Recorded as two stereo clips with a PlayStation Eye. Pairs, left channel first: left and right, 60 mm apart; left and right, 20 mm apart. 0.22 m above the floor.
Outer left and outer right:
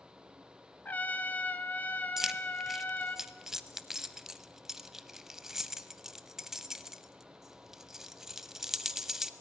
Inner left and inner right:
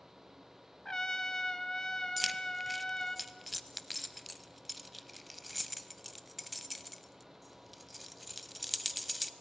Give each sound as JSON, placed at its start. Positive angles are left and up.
{"t": 0.8, "sound": "a trumpet", "side_deg": 30, "distance_m": 1.2}
{"t": 2.2, "sound": "keys jangling", "side_deg": -5, "distance_m": 0.7}